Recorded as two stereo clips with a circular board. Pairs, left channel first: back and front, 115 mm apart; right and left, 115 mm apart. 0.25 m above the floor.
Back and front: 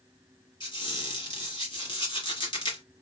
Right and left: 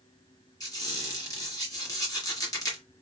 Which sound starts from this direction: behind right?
A squeak, at 0.6 s.